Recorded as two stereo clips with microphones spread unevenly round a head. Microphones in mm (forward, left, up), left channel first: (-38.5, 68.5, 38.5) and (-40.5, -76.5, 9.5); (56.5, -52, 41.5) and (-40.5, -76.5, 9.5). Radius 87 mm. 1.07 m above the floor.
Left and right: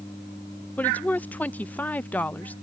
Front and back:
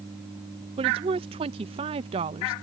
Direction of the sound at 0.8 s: 170° left.